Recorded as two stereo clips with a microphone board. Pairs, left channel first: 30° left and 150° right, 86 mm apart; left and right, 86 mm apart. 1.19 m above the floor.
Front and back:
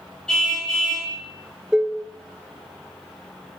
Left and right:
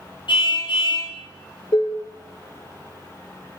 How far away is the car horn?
About 5.5 m.